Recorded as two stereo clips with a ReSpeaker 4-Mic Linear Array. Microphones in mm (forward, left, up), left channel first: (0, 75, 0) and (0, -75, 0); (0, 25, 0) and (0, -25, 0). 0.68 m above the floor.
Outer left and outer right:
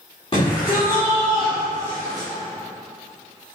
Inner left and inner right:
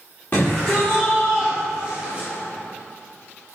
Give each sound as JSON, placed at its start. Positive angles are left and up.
{"t": 0.3, "sound": "a shout", "side_deg": 35, "distance_m": 1.9}